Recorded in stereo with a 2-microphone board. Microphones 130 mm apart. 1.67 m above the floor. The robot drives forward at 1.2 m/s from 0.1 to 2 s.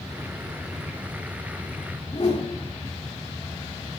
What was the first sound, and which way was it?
A whoosh, 55° left (ahead or behind).